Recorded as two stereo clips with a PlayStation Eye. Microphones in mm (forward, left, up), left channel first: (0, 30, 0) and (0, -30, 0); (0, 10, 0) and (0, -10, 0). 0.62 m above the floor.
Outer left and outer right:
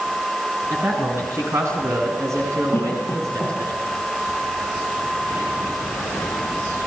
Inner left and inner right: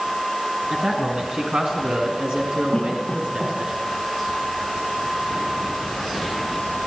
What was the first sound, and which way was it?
A man speaking, 50° right (ahead or behind).